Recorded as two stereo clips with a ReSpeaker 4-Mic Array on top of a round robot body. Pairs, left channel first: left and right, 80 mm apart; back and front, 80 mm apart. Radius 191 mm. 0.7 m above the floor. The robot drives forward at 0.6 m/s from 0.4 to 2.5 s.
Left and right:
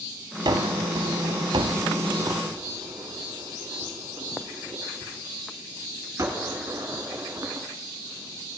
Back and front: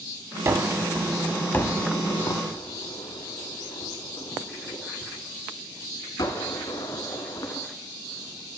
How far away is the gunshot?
About 0.7 m.